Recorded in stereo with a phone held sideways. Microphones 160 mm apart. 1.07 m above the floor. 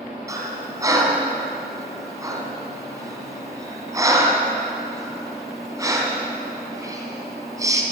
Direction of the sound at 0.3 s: 20° right (ahead or behind).